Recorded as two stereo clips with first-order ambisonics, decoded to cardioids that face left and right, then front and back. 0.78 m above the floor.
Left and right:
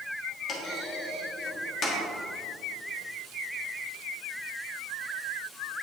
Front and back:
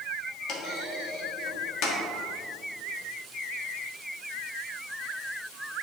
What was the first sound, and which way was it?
A clunk, 30° left.